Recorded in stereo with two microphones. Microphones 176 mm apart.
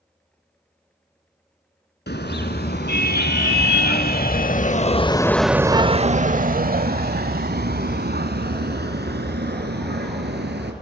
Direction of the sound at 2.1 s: 75° left (ahead or behind).